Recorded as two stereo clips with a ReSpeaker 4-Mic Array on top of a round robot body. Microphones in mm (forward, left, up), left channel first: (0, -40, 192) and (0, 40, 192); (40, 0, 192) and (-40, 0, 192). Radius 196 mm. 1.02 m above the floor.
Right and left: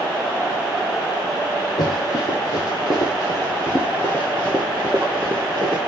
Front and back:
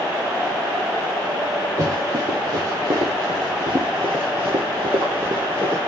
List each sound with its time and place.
1.8 s running footsteps: 130° right, 2 m; by 5.8 s 125° left, 1.1 m